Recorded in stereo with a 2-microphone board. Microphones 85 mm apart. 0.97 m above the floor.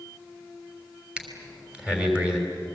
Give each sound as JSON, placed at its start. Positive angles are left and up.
{"t": 1.2, "sound": "breathing", "side_deg": -15, "distance_m": 3.5}